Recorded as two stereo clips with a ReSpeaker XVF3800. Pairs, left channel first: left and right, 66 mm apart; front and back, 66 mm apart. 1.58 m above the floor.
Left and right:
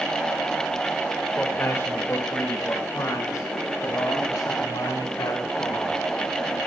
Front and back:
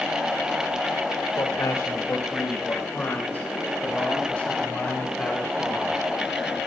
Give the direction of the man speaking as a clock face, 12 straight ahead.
11 o'clock.